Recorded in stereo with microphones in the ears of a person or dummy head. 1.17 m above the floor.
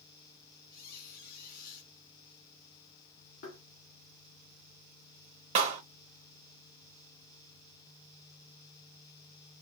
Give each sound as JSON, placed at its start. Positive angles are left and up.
{"t": 0.7, "sound": "a squeak", "side_deg": 55, "distance_m": 2.5}
{"t": 3.4, "sound": "tapping", "side_deg": 65, "distance_m": 2.5}
{"t": 5.5, "sound": "a clap", "side_deg": -30, "distance_m": 0.9}